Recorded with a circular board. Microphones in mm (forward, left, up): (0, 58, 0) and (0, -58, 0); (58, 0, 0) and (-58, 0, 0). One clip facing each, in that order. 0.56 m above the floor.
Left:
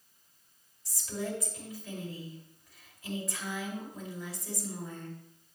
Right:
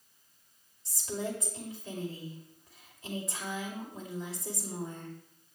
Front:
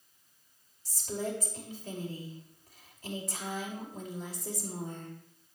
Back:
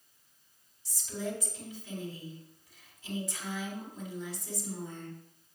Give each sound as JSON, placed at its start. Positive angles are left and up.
{"t": 0.8, "sound": "a woman speaking", "azimuth_deg": -30, "distance_m": 2.5}